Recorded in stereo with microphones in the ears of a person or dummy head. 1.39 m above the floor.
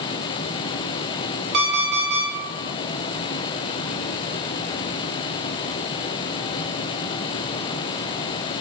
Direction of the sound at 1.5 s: 40° right (ahead or behind).